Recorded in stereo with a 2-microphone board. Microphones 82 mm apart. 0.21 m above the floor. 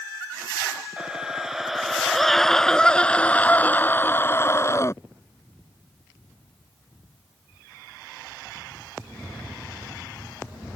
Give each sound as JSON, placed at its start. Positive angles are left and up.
{"t": 1.0, "sound": "a scream", "side_deg": -10}